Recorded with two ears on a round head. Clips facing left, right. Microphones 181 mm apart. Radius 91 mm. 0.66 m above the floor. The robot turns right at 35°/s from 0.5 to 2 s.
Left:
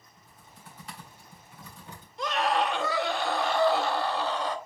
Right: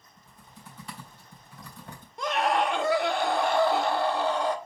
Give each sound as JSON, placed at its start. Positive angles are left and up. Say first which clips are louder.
{"t": 0.2, "sound": "typing on a keyboard", "louder": "right 3 dB", "side_deg": -80, "distance_m": 3.5}
{"t": 2.2, "sound": "a scream", "louder": "right 1 dB", "side_deg": -45, "distance_m": 1.5}